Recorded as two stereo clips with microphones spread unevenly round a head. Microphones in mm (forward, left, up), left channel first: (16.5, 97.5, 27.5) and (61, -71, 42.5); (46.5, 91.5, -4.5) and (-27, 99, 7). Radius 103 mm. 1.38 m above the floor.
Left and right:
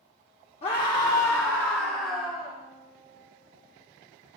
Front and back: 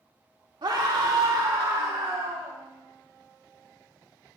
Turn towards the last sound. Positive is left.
turn(degrees=-165)